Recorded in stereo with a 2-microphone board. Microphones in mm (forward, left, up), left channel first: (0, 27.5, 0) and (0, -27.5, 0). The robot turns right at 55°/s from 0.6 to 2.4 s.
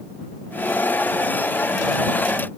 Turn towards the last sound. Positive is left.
No sound to turn to.